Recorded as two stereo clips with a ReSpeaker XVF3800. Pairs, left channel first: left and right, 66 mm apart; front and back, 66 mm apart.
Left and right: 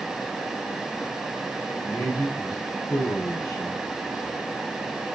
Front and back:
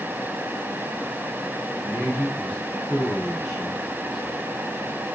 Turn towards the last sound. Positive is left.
turn(degrees=100)